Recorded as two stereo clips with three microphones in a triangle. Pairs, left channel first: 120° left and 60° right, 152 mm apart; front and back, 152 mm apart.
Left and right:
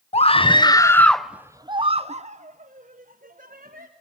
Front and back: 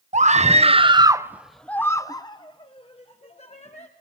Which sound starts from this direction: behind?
A scream, at 0.1 s.